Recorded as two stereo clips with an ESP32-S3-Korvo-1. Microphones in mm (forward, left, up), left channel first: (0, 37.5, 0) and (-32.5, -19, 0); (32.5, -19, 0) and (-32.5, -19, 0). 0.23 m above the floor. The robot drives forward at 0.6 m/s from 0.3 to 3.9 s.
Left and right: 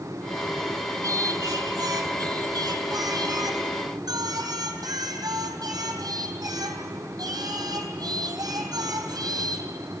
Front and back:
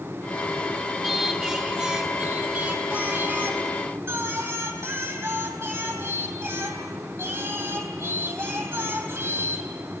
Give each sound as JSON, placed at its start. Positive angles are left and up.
{"t": 1.0, "sound": "singing", "azimuth_deg": -95, "distance_m": 2.0}